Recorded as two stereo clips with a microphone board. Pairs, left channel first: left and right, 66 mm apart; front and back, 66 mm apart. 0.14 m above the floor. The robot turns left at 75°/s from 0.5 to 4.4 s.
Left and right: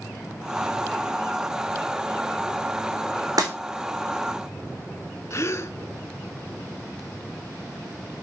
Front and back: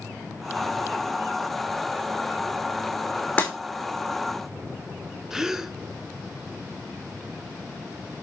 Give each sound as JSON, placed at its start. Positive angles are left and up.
{"t": 3.4, "sound": "breaking glass", "azimuth_deg": -70, "distance_m": 2.5}
{"t": 5.3, "sound": "a gasp", "azimuth_deg": 100, "distance_m": 0.6}